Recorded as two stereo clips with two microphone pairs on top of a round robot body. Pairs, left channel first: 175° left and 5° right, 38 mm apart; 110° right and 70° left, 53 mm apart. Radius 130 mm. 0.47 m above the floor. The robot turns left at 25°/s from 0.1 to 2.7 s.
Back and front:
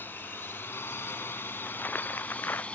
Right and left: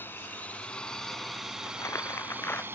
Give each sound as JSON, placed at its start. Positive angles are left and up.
{"t": 0.0, "sound": "a drone", "azimuth_deg": -160}
{"t": 1.6, "sound": "crumpling", "azimuth_deg": -135}